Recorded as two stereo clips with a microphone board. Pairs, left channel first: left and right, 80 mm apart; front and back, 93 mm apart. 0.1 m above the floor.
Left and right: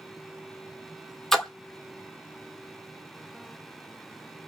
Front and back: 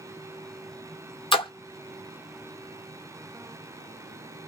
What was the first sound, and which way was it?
A splash, 5° left.